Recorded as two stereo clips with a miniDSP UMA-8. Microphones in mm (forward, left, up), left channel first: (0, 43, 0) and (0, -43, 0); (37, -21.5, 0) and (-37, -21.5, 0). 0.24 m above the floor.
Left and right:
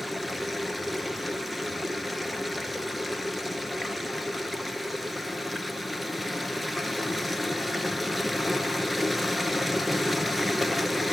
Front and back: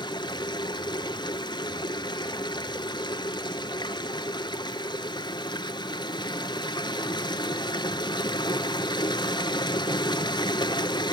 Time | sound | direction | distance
0.0 | running water | straight ahead | 0.9 m